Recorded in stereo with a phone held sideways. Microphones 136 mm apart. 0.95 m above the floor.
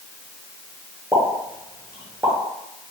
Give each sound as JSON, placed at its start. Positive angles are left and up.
{"t": 1.1, "sound": "a pop", "side_deg": -20, "distance_m": 0.8}